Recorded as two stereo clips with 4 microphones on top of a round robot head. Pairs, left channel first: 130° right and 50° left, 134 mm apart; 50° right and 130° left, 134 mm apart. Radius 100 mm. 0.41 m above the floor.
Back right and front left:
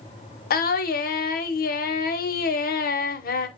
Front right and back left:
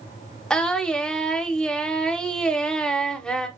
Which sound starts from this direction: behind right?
Singing, at 0.5 s.